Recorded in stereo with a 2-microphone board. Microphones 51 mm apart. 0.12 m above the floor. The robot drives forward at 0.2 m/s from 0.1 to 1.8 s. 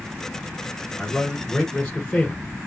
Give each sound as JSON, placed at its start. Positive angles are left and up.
{"t": 1.0, "sound": "a man speaking", "side_deg": 25, "distance_m": 1.2}